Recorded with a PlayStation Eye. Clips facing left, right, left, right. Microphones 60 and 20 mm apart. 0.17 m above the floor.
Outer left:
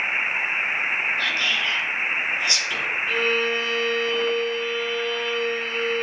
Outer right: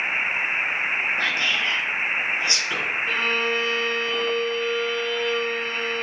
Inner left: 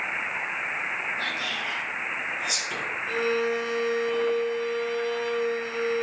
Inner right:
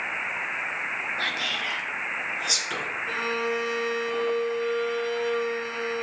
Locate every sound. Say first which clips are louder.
1.2 s whispering: even, inner right 2 dB; 30° right (ahead or behind), 2.5 m
3.1 s a violin: outer left 2 dB, inner left 3 dB; 5° left (ahead or behind), 2 m